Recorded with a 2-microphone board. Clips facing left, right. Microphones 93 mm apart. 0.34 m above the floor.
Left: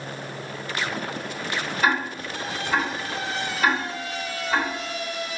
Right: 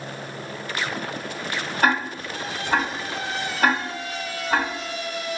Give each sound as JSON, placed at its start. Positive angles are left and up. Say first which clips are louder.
{"t": 1.8, "sound": "ticking", "louder": "right 2 dB", "side_deg": -50, "distance_m": 1.7}